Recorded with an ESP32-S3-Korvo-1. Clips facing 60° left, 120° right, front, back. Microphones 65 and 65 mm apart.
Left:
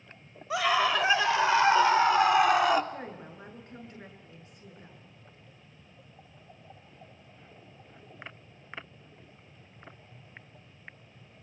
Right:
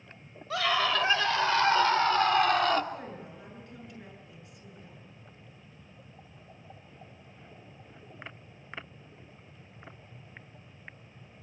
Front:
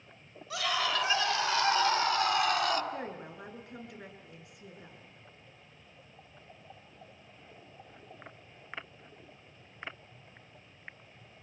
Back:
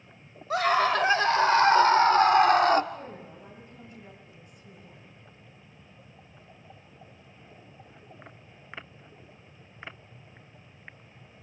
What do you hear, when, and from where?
0.5 s a scream: 135° left, 4 m
2.9 s a woman speaking: 5° left, 7.5 m